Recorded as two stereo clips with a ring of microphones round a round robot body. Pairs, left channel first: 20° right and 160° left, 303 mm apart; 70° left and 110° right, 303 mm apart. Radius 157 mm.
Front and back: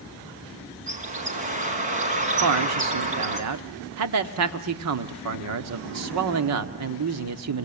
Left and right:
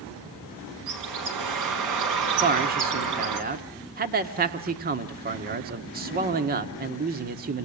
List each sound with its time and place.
0.9 s a bird: 135° right, 4 m
2.4 s a man speaking: 170° right, 1.5 m